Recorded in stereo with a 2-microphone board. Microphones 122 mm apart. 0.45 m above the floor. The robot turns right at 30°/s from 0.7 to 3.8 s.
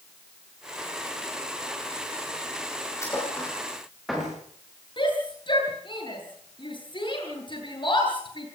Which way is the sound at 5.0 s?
45° left (ahead or behind).